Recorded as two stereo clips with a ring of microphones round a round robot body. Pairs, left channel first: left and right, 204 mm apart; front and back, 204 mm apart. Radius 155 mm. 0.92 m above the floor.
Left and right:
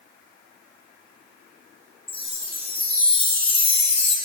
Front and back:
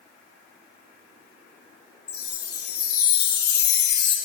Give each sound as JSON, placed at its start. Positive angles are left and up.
{"t": 2.1, "sound": "a chime", "azimuth_deg": 30, "distance_m": 2.5}